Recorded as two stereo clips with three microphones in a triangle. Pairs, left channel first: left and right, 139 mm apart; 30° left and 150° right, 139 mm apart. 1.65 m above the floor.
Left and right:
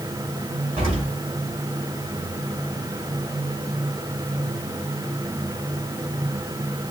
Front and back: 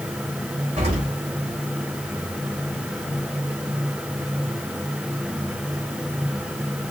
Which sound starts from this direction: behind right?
An explosion, at 0.8 s.